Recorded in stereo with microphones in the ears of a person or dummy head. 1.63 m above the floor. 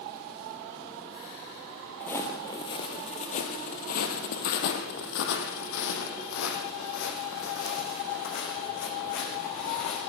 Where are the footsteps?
10° left (ahead or behind), 2.5 m; by 10.0 s 75° left (ahead or behind), 8.5 m.